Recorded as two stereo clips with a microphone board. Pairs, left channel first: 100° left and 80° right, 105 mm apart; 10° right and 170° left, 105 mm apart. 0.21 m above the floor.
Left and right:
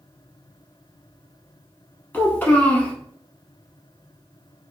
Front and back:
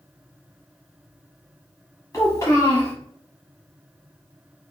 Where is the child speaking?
35° left, 0.9 m.